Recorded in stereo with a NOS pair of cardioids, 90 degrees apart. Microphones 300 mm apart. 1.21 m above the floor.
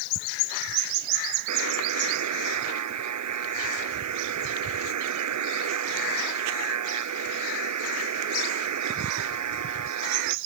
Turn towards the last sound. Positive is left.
turn(degrees=-65)